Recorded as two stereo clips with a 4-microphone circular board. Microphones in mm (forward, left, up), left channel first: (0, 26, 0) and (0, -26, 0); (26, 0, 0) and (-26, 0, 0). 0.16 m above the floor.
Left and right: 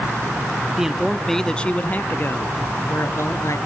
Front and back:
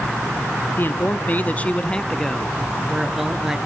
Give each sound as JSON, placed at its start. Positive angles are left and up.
{"t": 0.8, "sound": "a man speaking", "azimuth_deg": -15, "distance_m": 1.4}